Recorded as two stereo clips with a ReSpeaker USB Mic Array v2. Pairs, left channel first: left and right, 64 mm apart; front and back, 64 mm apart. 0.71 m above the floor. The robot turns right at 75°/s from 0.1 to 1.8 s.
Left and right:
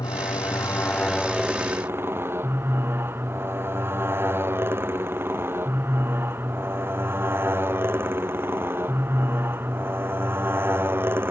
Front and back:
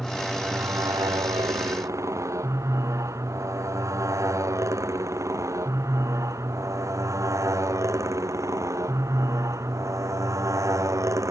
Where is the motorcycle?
90° left; by 11.3 s 145° right.